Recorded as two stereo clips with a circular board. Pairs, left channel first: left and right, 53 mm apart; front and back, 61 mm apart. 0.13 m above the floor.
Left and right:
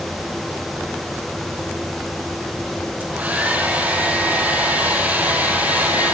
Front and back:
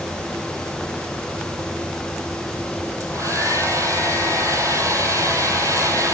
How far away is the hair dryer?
About 4 m.